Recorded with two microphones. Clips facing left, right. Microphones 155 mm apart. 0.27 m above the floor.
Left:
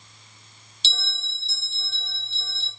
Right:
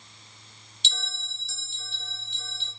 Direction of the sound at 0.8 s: 30° left (ahead or behind).